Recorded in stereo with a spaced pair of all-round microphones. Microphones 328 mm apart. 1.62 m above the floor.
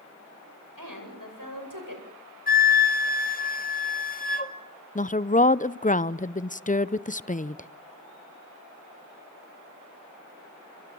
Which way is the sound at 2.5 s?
25° left (ahead or behind).